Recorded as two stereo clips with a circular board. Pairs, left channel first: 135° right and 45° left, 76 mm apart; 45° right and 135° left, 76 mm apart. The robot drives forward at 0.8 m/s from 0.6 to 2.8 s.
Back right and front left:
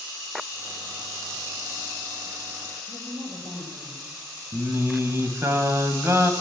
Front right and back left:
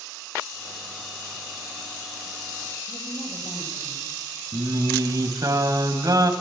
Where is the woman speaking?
25° left, 6 m.